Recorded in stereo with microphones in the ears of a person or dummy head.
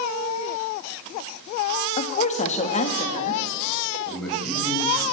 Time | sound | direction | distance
2.0 | a woman speaking | 30° left (ahead or behind) | 1.6 m
4.0 | a man speaking | 5° right (ahead or behind) | 7 m